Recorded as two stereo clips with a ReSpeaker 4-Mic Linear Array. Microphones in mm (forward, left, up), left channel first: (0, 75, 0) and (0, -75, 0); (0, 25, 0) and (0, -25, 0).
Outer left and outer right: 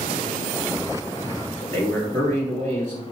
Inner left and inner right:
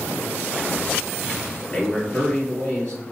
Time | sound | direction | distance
1.6 | a man speaking | 20° left (ahead or behind) | 1.8 m